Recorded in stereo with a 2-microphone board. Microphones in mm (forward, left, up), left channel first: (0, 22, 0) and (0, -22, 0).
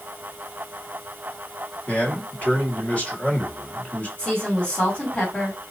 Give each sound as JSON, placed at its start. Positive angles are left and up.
{"t": 1.9, "sound": "a man speaking", "side_deg": 30, "distance_m": 1.5}
{"t": 4.2, "sound": "a woman speaking", "side_deg": 25, "distance_m": 2.5}